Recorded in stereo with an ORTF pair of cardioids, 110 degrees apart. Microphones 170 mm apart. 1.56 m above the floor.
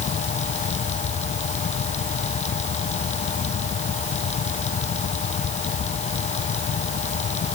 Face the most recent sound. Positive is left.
turn(degrees=45)